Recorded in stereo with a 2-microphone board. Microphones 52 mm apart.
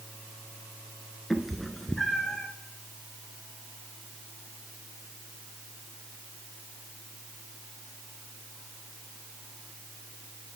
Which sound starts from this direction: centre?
A cat meowing, at 1.3 s.